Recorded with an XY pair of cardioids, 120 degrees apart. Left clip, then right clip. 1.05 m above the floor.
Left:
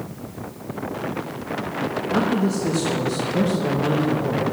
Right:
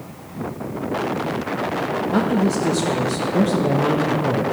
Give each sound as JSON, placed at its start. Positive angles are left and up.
{"t": 2.1, "sound": "a man speaking", "azimuth_deg": -20, "distance_m": 1.1}